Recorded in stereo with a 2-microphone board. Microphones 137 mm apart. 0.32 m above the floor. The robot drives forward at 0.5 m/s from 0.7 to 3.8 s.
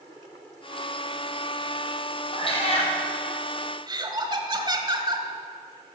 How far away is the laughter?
About 1.4 m.